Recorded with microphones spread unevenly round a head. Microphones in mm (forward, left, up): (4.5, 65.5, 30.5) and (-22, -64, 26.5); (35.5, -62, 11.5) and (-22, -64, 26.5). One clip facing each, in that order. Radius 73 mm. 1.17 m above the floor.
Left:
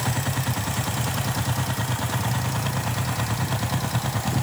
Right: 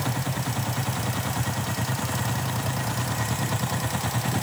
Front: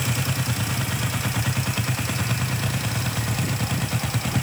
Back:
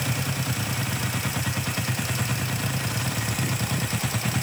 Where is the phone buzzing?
I don't hear a phone buzzing.